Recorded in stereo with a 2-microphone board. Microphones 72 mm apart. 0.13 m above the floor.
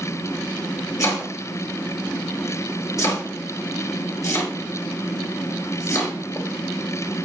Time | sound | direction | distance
1.0 | chopping | 45° left (ahead or behind) | 4.5 m